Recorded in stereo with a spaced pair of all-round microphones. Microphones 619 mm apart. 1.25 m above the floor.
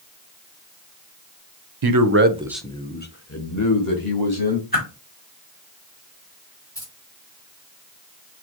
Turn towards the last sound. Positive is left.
turn(degrees=5)  # may be behind; listen again after turning